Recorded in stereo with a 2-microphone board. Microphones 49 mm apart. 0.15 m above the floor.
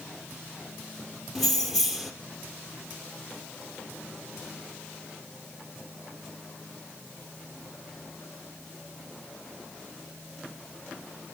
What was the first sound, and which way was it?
Keys jangling, centre (ahead or behind).